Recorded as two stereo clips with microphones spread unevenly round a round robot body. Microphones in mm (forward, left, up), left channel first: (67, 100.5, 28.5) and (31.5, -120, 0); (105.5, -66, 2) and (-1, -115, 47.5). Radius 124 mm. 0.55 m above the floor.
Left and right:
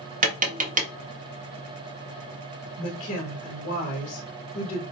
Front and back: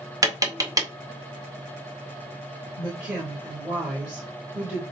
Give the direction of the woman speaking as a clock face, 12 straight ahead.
8 o'clock.